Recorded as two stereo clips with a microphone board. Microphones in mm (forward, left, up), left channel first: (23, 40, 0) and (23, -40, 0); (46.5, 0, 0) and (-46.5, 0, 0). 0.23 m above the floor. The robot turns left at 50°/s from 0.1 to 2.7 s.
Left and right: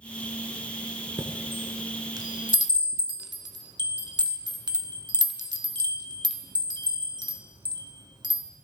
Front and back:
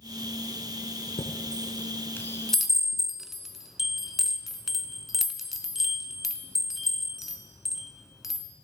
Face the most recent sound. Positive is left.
turn(degrees=-95)